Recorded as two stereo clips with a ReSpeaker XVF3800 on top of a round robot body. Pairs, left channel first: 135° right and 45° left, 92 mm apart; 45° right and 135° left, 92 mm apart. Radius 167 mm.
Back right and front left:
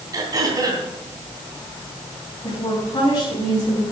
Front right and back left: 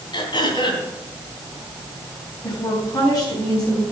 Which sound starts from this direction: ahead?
Throat clearing, at 0.1 s.